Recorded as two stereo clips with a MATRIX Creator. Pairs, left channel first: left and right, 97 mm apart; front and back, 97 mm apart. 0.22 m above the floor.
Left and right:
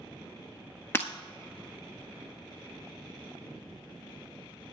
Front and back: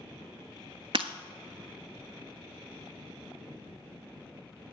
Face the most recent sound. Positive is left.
turn(degrees=155)